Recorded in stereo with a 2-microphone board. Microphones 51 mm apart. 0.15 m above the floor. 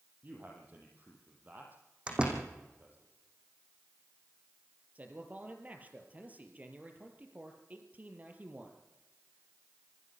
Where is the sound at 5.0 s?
30° right (ahead or behind), 4 m.